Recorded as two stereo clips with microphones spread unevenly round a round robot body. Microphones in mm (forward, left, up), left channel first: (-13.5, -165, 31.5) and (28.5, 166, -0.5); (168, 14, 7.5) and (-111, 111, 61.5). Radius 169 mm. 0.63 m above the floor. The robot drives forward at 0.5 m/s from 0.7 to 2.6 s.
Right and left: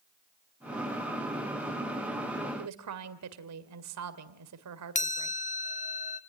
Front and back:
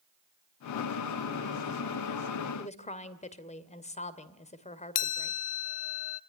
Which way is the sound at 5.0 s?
35° right.